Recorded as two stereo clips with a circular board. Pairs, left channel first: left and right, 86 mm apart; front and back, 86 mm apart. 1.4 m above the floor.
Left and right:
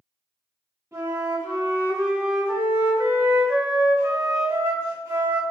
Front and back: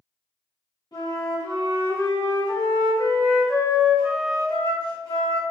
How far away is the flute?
About 1.9 m.